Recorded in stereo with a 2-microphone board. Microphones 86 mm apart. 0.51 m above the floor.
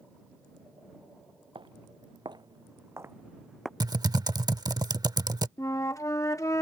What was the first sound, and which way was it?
Footsteps, 70° right (ahead or behind).